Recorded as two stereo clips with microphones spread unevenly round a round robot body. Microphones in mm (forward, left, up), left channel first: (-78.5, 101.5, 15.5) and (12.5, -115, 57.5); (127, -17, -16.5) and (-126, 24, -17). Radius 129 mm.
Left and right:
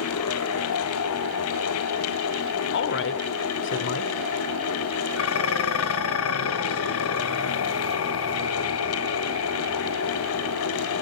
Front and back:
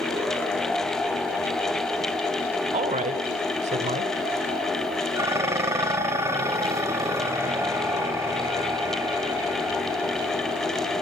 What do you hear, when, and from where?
2.7 s a woman speaking: 110° left, 1.5 m
5.2 s dishes clattering: 90° left, 1.4 m